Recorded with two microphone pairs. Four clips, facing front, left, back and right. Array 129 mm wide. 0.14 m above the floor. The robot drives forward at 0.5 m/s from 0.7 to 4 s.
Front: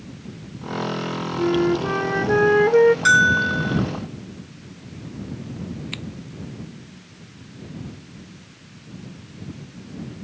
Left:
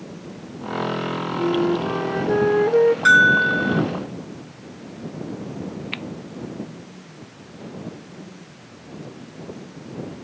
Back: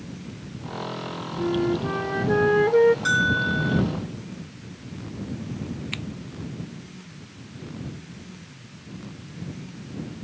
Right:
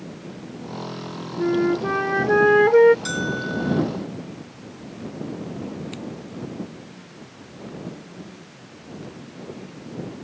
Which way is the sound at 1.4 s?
70° right.